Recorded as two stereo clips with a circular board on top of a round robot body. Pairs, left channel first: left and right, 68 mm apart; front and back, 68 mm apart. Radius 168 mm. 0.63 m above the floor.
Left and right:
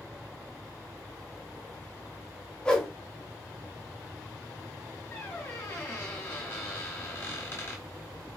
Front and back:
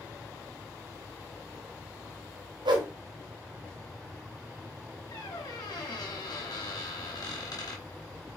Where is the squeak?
35° left, 0.8 m.